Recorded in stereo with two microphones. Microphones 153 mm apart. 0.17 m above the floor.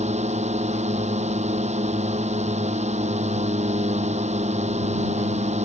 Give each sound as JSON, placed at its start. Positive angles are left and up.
{"t": 0.0, "sound": "a drone", "side_deg": -50}